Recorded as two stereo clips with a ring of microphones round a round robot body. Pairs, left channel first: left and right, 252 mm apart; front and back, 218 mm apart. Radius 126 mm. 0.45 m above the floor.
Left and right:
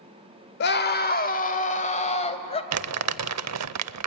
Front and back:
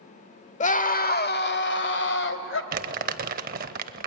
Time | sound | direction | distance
0.6 | a scream | 50° left | 1.2 m
2.7 | crumpling | 120° right | 0.6 m